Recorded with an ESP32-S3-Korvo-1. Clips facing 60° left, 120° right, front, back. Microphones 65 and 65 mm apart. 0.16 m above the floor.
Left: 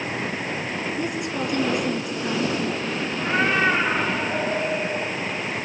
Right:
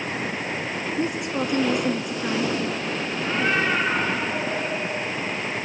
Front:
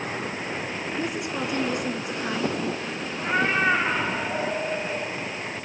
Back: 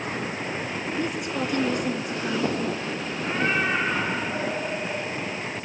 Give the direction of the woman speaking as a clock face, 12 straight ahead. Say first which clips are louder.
Right 4 dB, back 1 dB; 2 o'clock.